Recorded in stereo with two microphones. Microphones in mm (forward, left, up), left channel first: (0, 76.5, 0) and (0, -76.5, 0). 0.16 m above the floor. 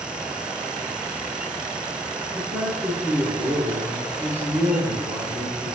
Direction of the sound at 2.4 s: 15° right (ahead or behind).